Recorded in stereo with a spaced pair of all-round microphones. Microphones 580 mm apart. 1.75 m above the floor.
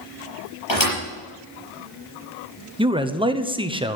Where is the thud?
50° left (ahead or behind), 6 m.